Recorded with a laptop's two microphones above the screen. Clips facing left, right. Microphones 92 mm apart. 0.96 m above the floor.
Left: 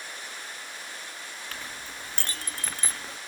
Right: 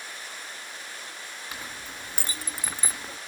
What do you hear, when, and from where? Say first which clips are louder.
1.5 s a clink: right 1 dB; 10° right (ahead or behind), 0.6 m